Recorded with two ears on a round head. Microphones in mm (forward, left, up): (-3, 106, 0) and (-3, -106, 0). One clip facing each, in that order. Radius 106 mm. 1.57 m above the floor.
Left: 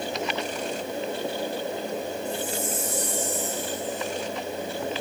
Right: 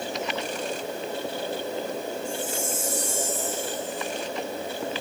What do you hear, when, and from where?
2.2 s a chime: 40° right (ahead or behind), 6 m